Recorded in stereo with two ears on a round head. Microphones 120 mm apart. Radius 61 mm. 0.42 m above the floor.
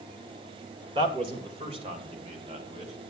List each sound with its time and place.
0.9 s a man speaking: 35° right (ahead or behind), 1.8 m; by 2.9 s 40° right (ahead or behind), 3.5 m